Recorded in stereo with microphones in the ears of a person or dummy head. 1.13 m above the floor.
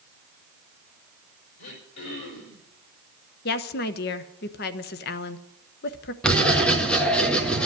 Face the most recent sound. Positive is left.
turn(degrees=5)  # may be behind; listen again after turning